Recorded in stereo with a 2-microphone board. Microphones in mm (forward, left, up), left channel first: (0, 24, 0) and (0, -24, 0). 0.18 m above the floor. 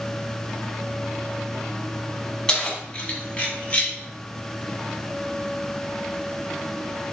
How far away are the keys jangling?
About 0.9 m.